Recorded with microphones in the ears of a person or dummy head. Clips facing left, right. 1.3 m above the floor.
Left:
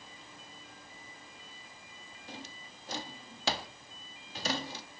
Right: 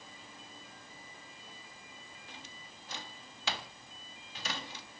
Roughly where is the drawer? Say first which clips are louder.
Left 9 dB; left.